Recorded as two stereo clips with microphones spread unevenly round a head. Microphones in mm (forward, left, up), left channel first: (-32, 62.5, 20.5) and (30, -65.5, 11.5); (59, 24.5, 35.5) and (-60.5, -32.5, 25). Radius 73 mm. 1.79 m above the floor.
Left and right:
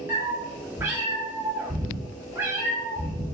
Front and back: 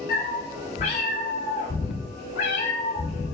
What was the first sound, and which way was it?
A cat meowing, 10° left.